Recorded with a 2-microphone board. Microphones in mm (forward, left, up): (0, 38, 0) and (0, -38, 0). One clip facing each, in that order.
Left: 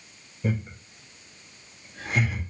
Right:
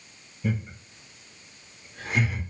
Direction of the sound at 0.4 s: 30° left (ahead or behind).